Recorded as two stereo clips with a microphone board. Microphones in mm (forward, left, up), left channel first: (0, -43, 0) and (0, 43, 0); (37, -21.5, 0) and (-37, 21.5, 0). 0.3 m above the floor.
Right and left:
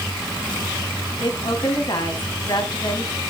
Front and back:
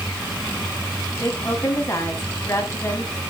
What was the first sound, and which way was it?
A woman speaking, 85° right.